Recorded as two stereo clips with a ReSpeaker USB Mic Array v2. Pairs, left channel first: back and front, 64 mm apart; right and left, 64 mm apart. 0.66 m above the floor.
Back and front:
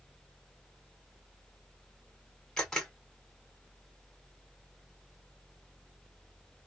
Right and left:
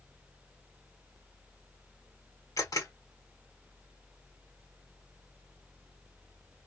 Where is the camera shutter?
95° right, 1.8 m.